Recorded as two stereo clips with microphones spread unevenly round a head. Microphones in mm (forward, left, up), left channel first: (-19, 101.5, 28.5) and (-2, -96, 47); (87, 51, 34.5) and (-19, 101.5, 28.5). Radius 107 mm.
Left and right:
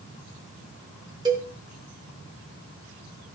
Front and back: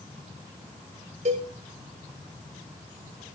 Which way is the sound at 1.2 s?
155° right.